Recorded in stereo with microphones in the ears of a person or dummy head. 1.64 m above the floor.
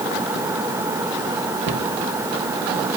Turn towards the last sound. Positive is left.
turn(degrees=-65)  # may be behind; listen again after turning